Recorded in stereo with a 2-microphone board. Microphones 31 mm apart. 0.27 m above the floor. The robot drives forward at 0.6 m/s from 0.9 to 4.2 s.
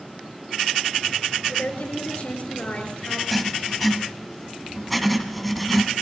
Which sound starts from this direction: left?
A woman speaking, at 1.5 s.